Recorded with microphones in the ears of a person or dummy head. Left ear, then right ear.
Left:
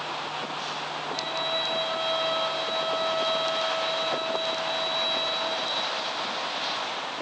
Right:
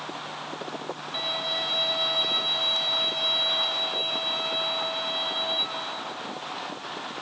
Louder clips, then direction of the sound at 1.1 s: Right 2 dB; 45° right (ahead or behind).